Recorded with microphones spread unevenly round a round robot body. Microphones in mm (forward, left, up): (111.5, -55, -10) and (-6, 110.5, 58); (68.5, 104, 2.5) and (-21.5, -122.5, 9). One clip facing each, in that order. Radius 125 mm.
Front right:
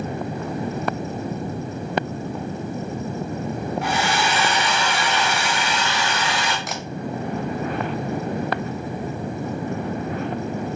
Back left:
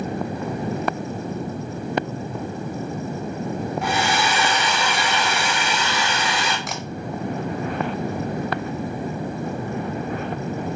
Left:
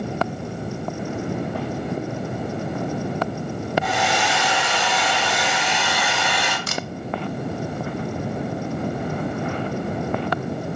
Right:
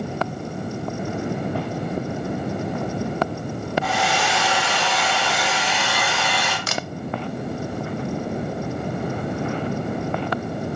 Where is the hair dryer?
145° left, 2.5 m.